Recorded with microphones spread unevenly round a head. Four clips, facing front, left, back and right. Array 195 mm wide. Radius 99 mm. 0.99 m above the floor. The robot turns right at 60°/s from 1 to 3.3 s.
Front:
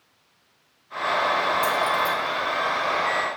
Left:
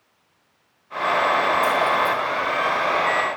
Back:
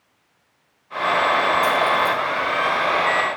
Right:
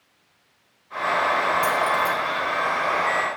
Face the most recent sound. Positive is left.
turn(degrees=30)